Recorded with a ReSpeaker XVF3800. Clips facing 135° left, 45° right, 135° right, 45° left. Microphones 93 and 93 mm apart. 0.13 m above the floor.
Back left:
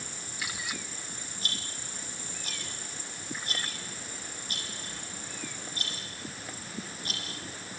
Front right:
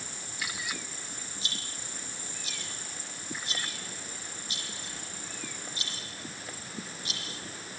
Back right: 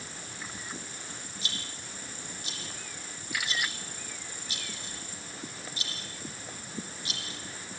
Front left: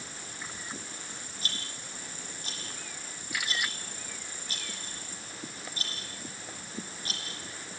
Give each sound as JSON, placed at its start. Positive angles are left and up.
{"t": 1.4, "sound": "a rattle", "azimuth_deg": 95, "distance_m": 6.0}